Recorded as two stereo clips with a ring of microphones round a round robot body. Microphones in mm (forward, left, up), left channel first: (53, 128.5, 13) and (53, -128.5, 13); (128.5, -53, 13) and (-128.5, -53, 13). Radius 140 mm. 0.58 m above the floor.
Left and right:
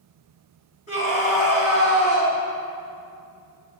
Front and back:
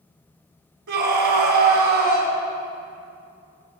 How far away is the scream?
About 4 m.